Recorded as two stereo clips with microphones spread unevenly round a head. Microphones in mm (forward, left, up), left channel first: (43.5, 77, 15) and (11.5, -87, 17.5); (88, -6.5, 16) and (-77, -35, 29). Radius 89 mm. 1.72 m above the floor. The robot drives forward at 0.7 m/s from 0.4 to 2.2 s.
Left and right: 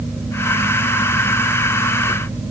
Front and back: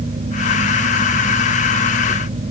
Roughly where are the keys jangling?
I don't hear keys jangling.